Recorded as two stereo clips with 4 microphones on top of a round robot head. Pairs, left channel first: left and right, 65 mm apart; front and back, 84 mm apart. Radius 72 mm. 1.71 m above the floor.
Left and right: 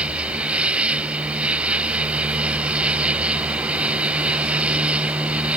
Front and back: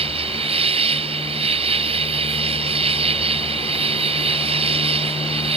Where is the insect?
165° right.